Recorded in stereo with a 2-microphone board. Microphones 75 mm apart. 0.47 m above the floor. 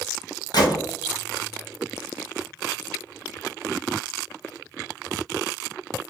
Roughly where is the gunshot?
Left.